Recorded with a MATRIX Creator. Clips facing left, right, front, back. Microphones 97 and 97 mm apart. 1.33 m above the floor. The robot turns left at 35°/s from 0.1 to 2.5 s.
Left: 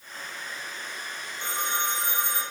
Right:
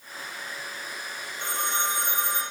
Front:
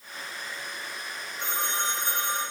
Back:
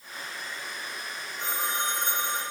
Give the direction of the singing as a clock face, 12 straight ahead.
No singing in this recording.